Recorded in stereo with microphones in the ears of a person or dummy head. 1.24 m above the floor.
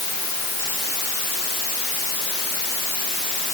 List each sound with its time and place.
Only background noise.